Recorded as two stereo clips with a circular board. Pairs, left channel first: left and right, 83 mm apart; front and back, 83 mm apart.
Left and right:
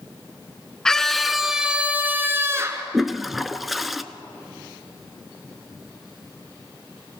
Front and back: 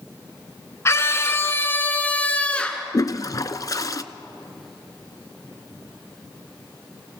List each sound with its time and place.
0.8 s a scream: 15° left, 1.6 m; by 2.8 s 75° right, 1.7 m
2.9 s a toilet flushing: straight ahead, 0.7 m